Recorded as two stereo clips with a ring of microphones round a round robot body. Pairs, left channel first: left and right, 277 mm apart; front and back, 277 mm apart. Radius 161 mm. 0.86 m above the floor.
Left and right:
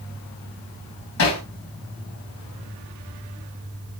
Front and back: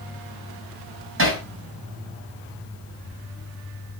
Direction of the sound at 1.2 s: 135° left.